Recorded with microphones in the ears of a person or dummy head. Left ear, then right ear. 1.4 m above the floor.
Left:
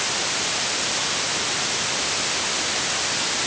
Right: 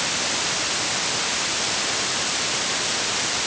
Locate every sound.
Only background noise.